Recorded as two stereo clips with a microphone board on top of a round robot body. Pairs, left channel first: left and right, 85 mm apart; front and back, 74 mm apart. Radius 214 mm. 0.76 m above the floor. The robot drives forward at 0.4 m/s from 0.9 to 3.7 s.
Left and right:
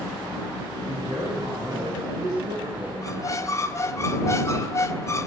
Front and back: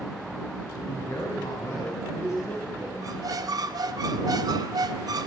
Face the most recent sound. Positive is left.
turn(degrees=145)